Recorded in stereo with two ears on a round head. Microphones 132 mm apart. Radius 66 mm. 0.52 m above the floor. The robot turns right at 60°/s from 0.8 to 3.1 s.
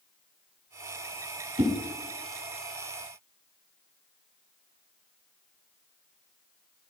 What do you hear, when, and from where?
1.6 s a whoosh: 45° right (ahead or behind), 1.5 m; by 1.7 s 55° right (ahead or behind), 1.5 m